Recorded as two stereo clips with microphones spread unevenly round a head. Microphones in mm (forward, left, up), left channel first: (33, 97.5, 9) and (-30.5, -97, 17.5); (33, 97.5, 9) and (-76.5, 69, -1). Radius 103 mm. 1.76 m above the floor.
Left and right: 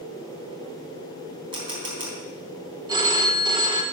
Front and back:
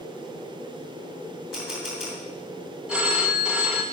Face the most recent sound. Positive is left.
turn(degrees=-75)